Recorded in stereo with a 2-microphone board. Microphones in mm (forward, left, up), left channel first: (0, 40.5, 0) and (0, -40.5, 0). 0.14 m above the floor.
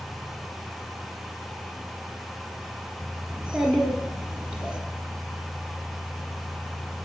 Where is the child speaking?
10° right (ahead or behind), 1.2 m.